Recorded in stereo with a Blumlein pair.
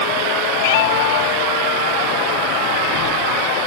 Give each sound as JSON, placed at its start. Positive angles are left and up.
{"t": 0.6, "sound": "a cat meowing", "azimuth_deg": 55}